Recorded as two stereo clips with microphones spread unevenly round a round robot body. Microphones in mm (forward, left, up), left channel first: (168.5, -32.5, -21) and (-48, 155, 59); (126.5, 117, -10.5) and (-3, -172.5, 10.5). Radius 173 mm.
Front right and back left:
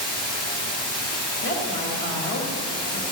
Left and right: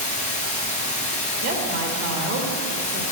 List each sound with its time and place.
0.0 s running water: 5° right, 3 m
1.4 s a woman speaking: 75° right, 1.8 m